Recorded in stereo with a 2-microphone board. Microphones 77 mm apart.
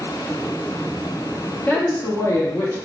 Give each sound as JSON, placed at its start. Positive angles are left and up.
{"t": 1.7, "sound": "a woman speaking", "side_deg": 20, "distance_m": 0.8}